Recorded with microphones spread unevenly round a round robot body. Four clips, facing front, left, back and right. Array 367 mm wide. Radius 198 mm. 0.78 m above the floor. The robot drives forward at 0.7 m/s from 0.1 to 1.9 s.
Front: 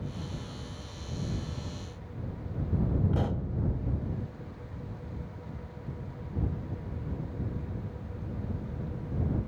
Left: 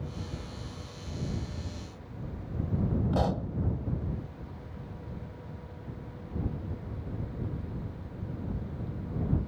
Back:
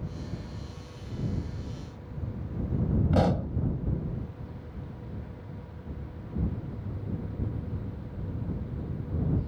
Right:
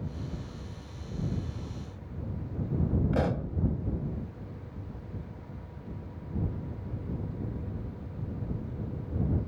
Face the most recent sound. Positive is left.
turn(degrees=-170)